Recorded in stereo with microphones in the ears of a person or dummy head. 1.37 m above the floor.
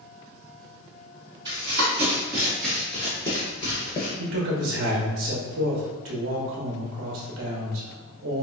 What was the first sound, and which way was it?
Running footsteps, 25° right (ahead or behind).